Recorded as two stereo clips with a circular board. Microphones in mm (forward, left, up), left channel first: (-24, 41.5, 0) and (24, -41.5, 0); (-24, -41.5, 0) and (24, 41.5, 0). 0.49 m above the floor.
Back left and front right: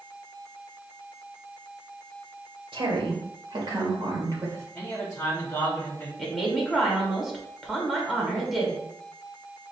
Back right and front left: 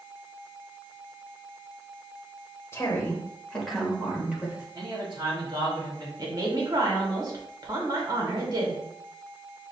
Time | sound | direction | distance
2.7 | a woman speaking | 60° right | 1.5 m
4.8 | a man speaking | 50° left | 1.3 m
6.2 | a woman speaking | 30° left | 1.3 m